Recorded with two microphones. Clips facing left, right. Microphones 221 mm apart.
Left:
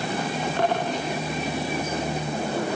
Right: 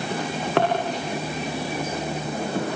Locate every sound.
0.1 s a drawer: 80° right, 7 m